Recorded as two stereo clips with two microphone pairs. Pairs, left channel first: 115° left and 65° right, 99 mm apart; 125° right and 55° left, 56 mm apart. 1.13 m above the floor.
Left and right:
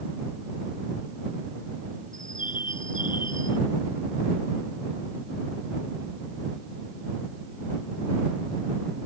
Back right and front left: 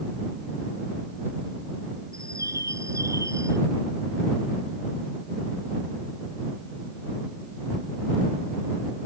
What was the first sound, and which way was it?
A bird, 75° left.